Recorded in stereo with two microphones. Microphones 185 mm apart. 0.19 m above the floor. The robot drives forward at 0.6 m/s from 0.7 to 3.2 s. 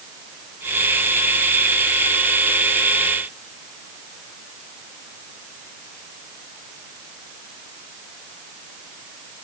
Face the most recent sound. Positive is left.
No sound to turn to.